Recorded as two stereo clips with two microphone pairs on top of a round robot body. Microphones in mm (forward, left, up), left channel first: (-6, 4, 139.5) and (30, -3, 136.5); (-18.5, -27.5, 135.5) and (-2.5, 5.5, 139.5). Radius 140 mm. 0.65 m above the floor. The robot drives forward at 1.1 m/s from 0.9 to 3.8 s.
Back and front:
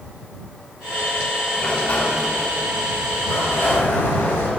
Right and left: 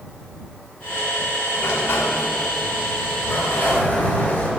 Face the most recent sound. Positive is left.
turn(degrees=-165)